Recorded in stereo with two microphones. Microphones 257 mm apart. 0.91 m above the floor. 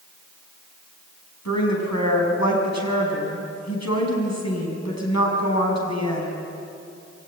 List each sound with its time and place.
1.4 s a woman speaking: 85° left, 6 m